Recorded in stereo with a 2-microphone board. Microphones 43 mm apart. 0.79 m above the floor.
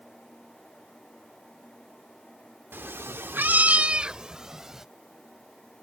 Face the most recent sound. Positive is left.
turn(degrees=-10)  # may be behind; listen again after turning